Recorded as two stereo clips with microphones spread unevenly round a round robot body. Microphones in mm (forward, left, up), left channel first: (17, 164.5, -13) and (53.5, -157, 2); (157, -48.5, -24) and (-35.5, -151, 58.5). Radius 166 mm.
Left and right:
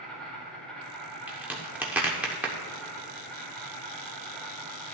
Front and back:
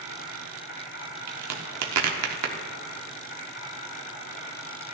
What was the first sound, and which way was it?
An insect, 10° left.